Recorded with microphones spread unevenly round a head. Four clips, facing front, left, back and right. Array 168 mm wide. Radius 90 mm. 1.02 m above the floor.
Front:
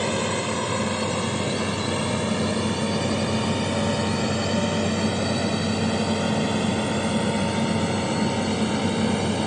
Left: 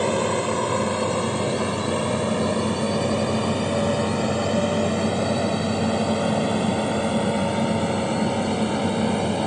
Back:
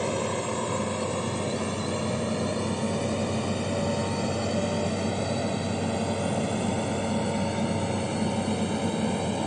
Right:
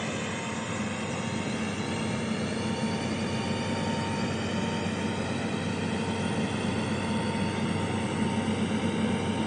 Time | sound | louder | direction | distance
0.0 | a drone | left 11 dB, front 3 dB | 90° left | ?